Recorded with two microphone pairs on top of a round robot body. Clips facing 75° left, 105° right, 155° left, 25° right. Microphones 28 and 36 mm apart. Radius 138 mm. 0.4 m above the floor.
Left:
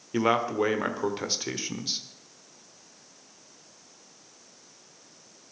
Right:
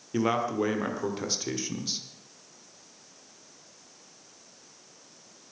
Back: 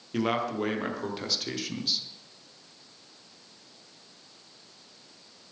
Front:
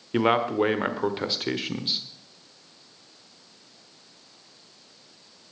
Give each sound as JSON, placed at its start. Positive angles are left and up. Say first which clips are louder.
{"t": 0.1, "sound": "a man speaking", "louder": "left 2 dB, front 6 dB", "azimuth_deg": 15, "distance_m": 1.4}